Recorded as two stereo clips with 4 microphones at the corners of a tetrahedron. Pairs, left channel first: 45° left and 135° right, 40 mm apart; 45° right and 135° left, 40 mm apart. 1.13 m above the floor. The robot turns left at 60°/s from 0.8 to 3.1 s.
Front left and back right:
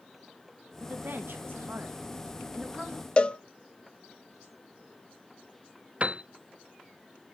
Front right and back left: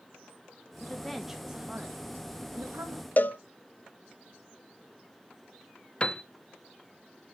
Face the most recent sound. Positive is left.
turn(degrees=-100)